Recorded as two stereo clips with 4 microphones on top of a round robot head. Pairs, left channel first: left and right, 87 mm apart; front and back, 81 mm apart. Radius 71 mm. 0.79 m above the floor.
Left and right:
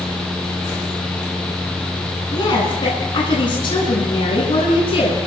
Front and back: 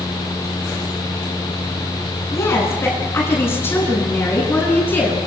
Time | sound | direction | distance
2.3 | a woman speaking | 55° left | 9.5 m